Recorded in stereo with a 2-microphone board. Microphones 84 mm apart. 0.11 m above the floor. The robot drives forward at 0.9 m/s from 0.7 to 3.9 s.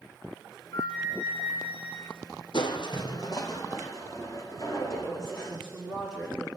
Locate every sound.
0.7 s a flute: 75° left (ahead or behind), 4.5 m
2.5 s crushing: 70° left (ahead or behind), 1.7 m; by 5.6 s 40° left (ahead or behind), 2.5 m
4.6 s a woman speaking: 10° left (ahead or behind), 6.5 m